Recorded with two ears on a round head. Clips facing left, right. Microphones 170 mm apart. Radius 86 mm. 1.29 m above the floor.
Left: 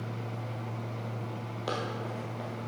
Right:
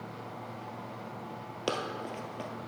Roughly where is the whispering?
No whispering in this recording.